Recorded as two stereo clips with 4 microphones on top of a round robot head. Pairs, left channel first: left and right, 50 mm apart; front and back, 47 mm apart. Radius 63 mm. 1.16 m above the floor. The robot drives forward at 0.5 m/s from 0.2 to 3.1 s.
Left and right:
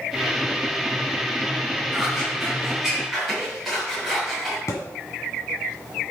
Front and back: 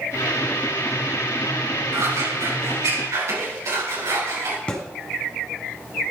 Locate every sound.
1.9 s scissors: 175° right, 6.5 m
4.7 s a thud: 70° left, 1.7 m